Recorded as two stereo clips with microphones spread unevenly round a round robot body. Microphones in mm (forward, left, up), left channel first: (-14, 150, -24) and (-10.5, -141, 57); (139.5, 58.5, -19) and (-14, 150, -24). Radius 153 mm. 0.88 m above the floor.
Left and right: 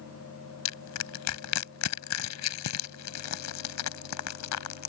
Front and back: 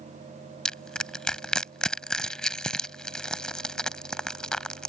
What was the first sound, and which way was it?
Crushing, 55° left.